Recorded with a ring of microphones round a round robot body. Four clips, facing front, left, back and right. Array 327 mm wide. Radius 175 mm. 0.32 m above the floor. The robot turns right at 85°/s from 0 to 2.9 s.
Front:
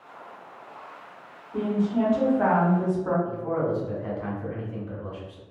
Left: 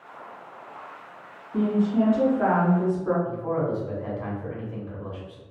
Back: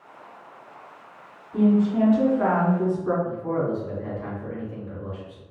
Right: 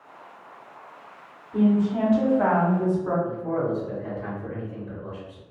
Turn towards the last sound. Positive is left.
turn(degrees=90)